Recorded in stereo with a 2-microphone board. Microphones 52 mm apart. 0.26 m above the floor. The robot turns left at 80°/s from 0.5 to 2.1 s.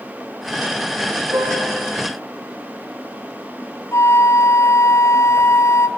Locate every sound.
1.3 s a piano: 90° right, 9 m; by 1.9 s 140° right, 9 m
3.9 s a flute: 65° left (ahead or behind), 1.3 m